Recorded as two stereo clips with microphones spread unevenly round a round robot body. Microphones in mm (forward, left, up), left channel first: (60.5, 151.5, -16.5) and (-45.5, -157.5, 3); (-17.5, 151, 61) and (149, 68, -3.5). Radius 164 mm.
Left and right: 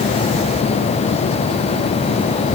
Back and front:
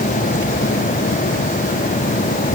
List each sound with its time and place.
Only background noise.